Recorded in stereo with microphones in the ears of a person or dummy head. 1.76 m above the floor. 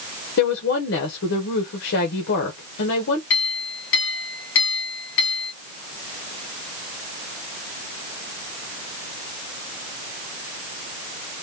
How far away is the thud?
I don't hear a thud.